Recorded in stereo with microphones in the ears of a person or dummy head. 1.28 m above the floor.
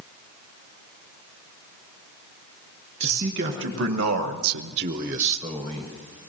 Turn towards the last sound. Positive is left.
turn(degrees=15)  # may be behind; listen again after turning